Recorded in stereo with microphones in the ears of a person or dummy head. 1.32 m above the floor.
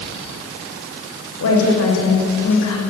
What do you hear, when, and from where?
1.4 s a woman speaking: 85° left, 7 m; by 2.8 s 80° left, 6 m